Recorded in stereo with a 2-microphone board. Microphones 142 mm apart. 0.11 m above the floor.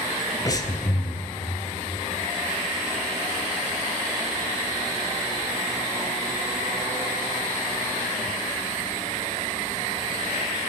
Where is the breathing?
25° left (ahead or behind), 0.7 m.